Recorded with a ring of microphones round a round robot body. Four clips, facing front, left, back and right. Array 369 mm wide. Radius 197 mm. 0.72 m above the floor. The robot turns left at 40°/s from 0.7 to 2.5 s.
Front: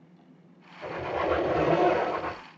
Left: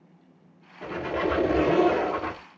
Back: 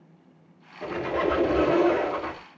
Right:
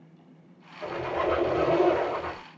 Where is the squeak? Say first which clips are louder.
Even, back 3 dB; 150° left, 1.1 m; by 2.4 s 85° left, 1.1 m.